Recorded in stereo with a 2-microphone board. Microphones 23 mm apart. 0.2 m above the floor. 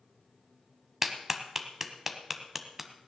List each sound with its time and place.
1.0 s a clap: 15° right (ahead or behind), 1.1 m